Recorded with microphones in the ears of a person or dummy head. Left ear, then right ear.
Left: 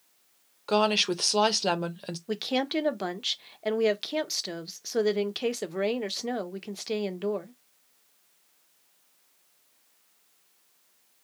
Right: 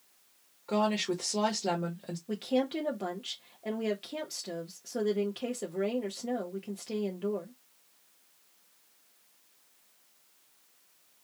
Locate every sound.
0.7 s a woman speaking: 60° left (ahead or behind), 0.7 m
2.3 s a woman speaking: 40° left (ahead or behind), 0.6 m